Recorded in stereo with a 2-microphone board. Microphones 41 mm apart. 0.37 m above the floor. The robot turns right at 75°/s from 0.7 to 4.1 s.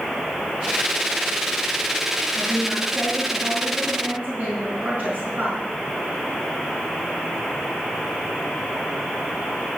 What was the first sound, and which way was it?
A woman speaking, straight behind.